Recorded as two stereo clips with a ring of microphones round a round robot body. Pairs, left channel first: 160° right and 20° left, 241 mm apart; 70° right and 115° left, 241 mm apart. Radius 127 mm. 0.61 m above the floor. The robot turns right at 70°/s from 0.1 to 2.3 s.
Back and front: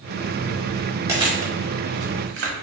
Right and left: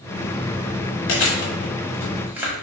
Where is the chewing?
55° right, 1.3 m; by 2.5 s 30° left, 1.3 m.